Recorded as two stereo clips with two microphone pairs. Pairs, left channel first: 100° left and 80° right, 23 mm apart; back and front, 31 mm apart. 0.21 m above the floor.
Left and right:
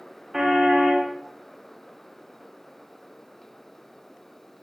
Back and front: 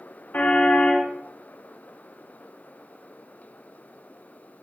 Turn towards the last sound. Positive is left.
turn(degrees=-150)